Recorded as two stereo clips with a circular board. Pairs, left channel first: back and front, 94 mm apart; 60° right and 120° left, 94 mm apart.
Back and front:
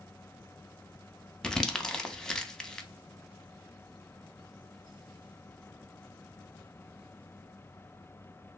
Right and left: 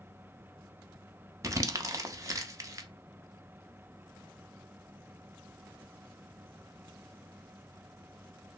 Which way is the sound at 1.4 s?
100° left.